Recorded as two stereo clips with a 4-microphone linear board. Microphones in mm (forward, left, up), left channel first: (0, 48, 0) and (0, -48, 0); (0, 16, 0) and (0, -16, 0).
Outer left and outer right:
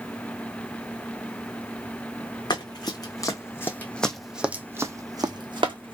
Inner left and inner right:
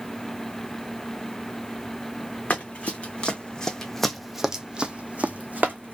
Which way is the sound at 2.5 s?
45° left (ahead or behind).